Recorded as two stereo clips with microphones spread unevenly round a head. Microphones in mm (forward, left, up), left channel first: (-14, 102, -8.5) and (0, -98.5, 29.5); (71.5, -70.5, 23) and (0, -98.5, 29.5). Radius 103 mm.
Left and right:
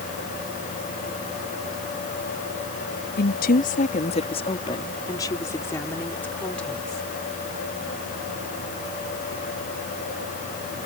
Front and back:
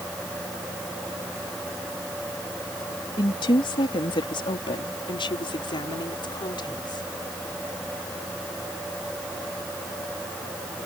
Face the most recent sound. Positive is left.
turn(degrees=5)